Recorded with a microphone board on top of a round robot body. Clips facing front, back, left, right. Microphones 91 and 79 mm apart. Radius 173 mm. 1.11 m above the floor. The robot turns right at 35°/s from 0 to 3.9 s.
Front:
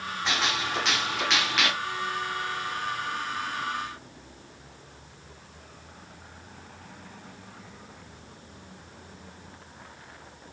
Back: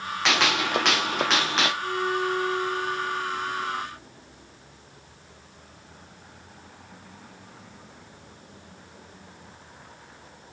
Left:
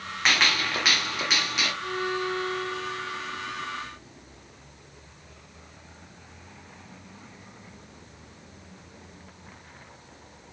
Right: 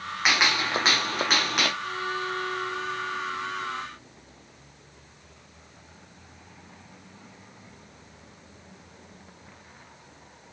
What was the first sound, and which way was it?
A gunshot, 170° right.